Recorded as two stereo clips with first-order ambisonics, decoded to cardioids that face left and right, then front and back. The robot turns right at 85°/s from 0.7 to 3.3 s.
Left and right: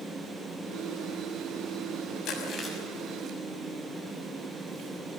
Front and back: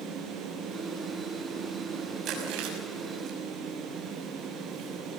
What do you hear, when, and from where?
2.2 s chewing: 135° left, 6 m; by 5.2 s 135° right, 6 m